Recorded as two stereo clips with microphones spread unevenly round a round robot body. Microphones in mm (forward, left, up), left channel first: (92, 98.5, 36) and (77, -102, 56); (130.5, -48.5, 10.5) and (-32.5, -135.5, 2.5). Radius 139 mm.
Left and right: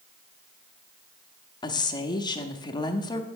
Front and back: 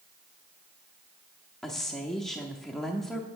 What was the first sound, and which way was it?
A woman speaking, 115° left.